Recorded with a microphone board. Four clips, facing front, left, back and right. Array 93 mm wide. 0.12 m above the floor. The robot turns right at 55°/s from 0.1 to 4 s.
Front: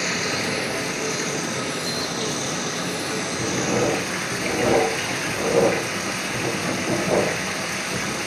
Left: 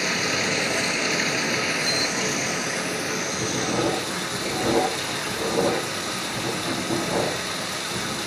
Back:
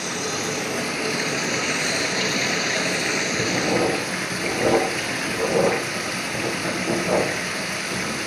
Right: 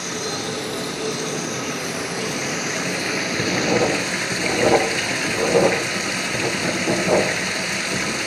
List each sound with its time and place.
0.0 s running water: 50° left, 1.9 m; by 8.3 s 95° right, 1.9 m
3.4 s writing: 130° right, 4 m; by 8.2 s 95° right, 4 m